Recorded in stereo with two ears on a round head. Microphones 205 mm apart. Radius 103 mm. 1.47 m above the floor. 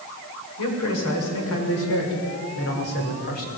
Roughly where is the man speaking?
Left.